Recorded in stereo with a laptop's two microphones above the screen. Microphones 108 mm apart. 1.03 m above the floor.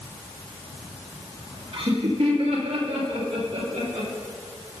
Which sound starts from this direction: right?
Laughter, at 1.7 s.